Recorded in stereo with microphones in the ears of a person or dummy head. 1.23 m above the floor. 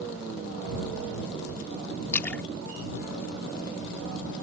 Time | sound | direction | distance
2.1 | a splash | 10° left (ahead or behind) | ?